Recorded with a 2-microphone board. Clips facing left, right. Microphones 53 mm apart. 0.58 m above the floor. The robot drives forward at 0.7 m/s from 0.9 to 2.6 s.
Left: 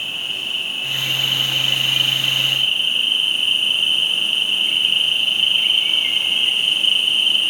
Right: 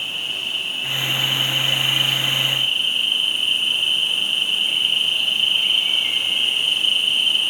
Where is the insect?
35° left (ahead or behind), 5.5 m; by 7.5 s 40° left (ahead or behind), 5 m.